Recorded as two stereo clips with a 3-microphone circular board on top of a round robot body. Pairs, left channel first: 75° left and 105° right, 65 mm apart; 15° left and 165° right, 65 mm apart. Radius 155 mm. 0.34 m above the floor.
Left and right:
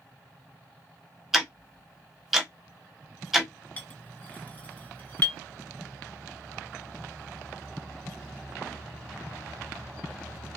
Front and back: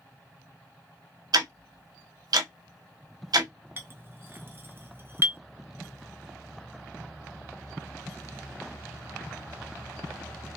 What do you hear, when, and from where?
1.3 s ticking: 170° left, 1.1 m
3.8 s a clink: 140° left, 1.0 m